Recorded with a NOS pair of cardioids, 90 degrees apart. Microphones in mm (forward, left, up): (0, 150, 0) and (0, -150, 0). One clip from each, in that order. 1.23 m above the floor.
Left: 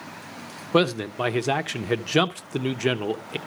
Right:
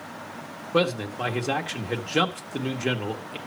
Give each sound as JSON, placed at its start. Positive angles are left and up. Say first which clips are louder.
{"t": 0.7, "sound": "a man speaking", "louder": "left 2 dB", "azimuth_deg": 40, "distance_m": 0.9}